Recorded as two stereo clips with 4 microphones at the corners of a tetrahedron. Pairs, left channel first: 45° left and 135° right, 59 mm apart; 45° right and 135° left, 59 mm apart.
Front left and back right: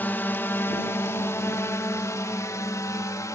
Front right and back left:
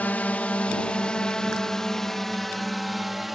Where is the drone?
5° left; by 3.4 s 50° left.